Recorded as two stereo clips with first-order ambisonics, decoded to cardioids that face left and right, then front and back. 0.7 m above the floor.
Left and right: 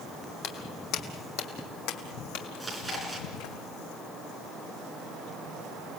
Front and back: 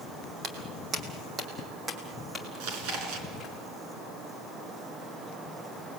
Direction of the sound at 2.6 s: 175° right.